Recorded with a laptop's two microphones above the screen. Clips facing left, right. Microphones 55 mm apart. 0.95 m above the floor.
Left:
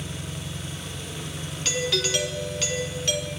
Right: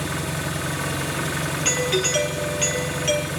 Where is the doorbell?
25° right (ahead or behind), 4 m.